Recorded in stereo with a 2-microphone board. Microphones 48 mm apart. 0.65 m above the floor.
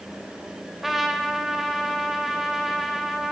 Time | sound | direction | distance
0.8 | a trumpet | 5° right (ahead or behind) | 3 m